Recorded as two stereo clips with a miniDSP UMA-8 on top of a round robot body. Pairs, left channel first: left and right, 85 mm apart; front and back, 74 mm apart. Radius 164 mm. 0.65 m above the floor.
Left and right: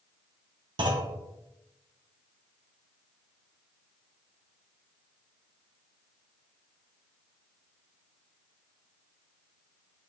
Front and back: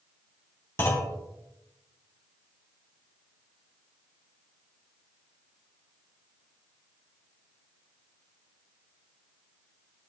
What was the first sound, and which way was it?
A clunk, 60° right.